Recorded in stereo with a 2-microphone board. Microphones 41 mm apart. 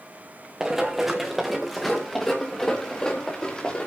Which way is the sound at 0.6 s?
15° right (ahead or behind).